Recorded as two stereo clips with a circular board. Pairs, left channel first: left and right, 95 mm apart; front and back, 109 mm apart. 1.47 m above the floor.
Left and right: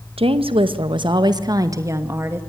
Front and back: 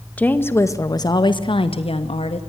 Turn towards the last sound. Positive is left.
turn(degrees=-20)